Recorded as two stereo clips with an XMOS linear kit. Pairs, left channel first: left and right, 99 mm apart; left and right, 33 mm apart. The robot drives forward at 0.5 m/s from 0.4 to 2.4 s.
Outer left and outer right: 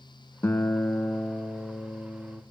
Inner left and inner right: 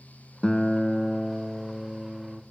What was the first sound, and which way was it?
A guitar, 25° left (ahead or behind).